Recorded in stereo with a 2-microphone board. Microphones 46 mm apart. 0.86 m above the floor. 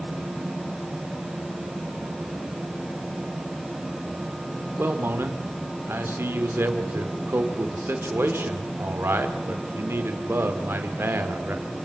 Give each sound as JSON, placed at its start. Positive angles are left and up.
{"t": 4.8, "sound": "a man speaking", "side_deg": -60, "distance_m": 3.0}